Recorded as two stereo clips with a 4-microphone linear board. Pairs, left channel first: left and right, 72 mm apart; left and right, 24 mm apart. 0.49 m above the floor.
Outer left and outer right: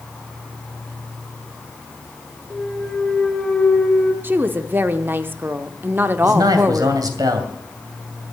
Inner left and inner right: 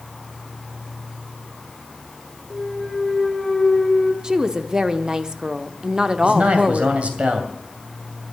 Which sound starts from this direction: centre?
A clunk, at 2.5 s.